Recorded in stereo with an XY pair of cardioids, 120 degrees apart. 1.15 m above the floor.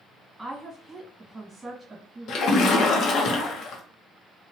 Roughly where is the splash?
Ahead left.